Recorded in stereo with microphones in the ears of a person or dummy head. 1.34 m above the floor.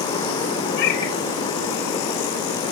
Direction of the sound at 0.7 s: 70° left (ahead or behind).